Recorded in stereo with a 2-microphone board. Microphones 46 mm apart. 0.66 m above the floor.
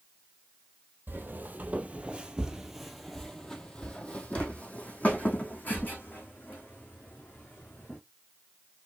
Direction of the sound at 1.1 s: 50° right (ahead or behind).